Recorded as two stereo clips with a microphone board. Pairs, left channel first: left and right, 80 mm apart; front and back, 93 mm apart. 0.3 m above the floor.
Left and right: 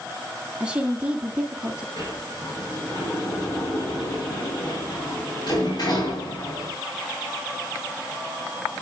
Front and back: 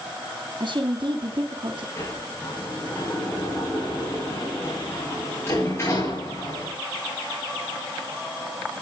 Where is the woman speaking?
165° right, 2.5 m.